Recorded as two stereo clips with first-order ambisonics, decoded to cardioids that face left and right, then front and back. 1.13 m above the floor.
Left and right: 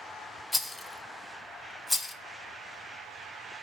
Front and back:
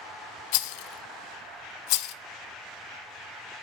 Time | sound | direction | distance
0.5 | a rattle | 5° left | 0.5 m